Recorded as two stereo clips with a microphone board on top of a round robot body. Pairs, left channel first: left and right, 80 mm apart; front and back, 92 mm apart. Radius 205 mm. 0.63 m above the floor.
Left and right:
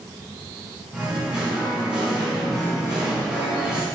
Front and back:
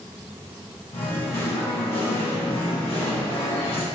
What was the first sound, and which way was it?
Singing, 10° right.